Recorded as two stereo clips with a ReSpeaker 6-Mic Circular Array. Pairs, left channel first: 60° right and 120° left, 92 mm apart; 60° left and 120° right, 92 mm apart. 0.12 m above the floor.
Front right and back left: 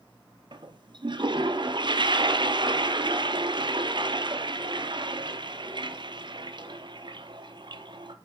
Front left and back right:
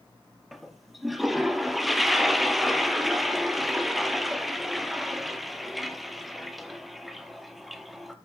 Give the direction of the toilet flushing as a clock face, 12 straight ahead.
7 o'clock.